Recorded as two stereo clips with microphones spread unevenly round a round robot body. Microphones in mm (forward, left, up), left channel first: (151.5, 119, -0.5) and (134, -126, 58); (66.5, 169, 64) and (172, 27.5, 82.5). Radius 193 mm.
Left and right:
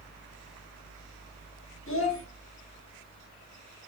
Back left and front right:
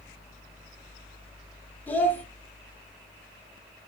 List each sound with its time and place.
1.9 s a child speaking: 45° left, 1.1 m